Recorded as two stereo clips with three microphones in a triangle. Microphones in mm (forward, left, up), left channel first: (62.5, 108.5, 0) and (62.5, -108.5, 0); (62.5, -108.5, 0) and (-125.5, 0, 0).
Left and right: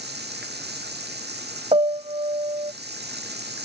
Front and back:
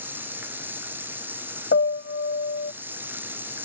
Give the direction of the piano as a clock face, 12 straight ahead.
1 o'clock.